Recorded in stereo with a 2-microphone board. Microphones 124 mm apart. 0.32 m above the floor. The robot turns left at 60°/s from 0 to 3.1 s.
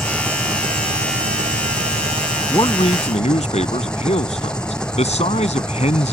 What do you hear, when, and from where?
0.0 s an engine running: straight ahead; by 6.1 s 175° left
2.5 s a man speaking: 145° left; by 6.1 s 110° left